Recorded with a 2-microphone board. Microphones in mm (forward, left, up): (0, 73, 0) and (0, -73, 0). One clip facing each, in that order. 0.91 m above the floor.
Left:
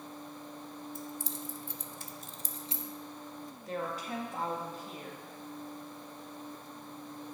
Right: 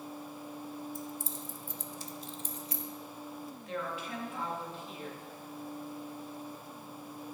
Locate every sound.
0.9 s keys jangling: 70° left (ahead or behind), 0.8 m; by 2.9 s 25° left (ahead or behind), 0.7 m
3.7 s a woman speaking: 40° left (ahead or behind), 1.5 m